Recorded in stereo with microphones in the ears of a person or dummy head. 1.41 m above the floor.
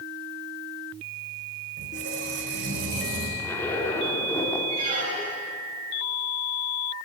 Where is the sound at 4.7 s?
30° right (ahead or behind), 8.5 m.